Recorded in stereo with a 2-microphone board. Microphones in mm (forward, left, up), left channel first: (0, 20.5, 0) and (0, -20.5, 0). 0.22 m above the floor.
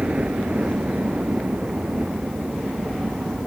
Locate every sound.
0.0 s a helicopter: 35° right (ahead or behind)